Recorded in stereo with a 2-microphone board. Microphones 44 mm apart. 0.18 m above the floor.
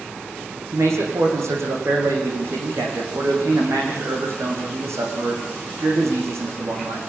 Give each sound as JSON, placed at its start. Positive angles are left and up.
{"t": 0.7, "sound": "a man speaking", "side_deg": -80, "distance_m": 9.0}